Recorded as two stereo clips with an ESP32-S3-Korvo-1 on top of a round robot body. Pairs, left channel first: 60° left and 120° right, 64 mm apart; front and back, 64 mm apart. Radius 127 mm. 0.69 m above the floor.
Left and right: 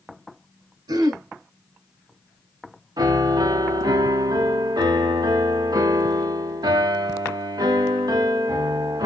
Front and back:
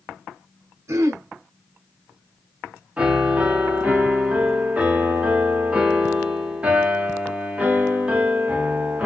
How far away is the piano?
About 1.3 m.